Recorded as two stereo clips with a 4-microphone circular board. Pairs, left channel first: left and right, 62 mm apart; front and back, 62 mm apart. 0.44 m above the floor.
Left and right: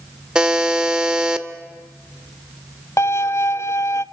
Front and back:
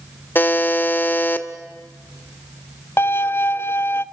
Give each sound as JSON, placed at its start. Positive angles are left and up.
{"t": 0.3, "sound": "a buzzer", "azimuth_deg": -25, "distance_m": 1.4}
{"t": 3.0, "sound": "a violin", "azimuth_deg": 50, "distance_m": 0.6}